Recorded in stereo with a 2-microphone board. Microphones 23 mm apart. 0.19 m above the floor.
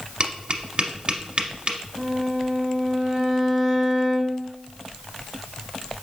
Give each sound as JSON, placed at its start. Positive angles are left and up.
{"t": 0.2, "sound": "tapping", "side_deg": -45, "distance_m": 0.7}
{"t": 2.0, "sound": "a violin", "side_deg": -15, "distance_m": 1.0}